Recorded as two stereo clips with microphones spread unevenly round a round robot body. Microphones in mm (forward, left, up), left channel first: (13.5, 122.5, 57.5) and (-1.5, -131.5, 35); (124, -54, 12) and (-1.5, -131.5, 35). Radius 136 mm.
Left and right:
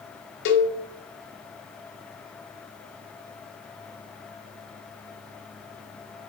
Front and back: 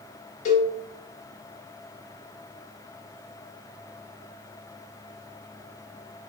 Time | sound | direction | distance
0.5 | a cowbell | 70° left | 0.6 m